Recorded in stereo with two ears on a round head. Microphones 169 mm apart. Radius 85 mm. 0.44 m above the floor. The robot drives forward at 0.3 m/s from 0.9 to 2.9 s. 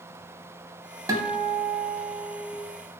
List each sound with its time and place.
1.1 s a guitar: 20° right (ahead or behind), 0.6 m; by 2.6 s 10° right (ahead or behind), 1.0 m